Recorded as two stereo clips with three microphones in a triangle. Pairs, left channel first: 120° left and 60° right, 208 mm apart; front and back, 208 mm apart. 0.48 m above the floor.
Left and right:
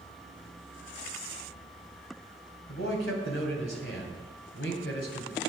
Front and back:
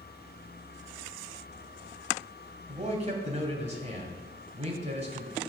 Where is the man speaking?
125° left, 2 m.